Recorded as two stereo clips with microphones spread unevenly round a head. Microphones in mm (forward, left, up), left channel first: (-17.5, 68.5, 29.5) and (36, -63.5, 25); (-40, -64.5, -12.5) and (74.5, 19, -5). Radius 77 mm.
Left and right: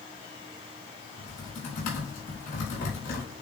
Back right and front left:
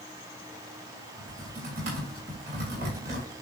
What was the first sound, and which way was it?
Typing on a keyboard, 80° left.